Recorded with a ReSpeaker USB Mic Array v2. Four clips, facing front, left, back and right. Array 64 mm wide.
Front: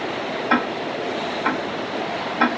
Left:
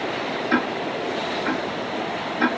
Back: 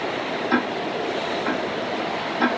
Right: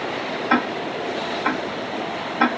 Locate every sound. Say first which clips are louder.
0.5 s ticking: right 2 dB, front 2 dB; 40° right, 0.9 m